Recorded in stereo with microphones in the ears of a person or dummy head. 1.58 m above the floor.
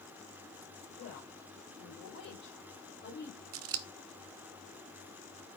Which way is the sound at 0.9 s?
65° left (ahead or behind).